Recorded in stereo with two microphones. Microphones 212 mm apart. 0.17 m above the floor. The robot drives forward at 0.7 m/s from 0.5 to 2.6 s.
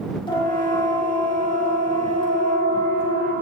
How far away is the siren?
About 7.5 m.